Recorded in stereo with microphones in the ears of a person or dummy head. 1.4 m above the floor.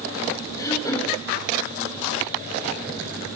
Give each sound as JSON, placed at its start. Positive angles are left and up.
{"t": 0.6, "sound": "throat clearing", "side_deg": 20, "distance_m": 4.5}